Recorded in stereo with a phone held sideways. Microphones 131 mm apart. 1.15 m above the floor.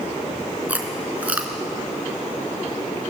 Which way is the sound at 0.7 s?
10° right (ahead or behind).